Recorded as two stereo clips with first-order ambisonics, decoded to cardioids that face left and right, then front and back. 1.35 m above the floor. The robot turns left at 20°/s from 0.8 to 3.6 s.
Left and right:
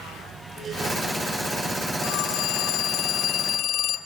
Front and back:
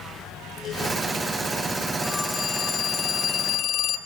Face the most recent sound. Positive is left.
turn(degrees=45)